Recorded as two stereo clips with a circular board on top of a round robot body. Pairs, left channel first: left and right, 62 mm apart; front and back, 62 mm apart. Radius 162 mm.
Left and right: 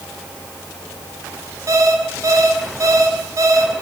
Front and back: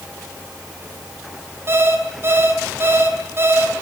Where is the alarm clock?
125° right, 5 m.